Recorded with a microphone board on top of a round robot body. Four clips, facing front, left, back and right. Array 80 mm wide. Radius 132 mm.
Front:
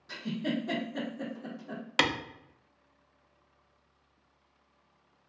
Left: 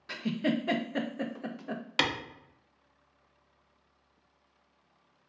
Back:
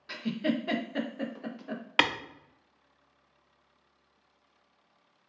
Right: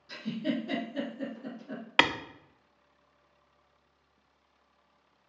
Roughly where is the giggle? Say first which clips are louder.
Left 3 dB, back 3 dB; behind left.